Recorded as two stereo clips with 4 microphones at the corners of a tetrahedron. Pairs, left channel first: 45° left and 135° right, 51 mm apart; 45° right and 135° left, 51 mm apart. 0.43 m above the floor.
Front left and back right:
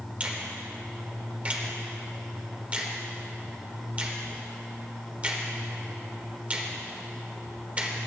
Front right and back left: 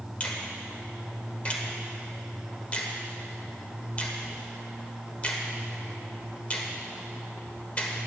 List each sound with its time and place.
0.2 s a finger snap: 90° right, 1.2 m